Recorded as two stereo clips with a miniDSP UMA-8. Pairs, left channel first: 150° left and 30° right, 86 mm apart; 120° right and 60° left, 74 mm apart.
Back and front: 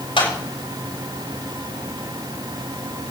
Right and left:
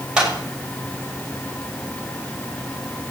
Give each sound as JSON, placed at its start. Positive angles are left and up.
{"t": 0.2, "sound": "a clap", "azimuth_deg": 140, "distance_m": 7.5}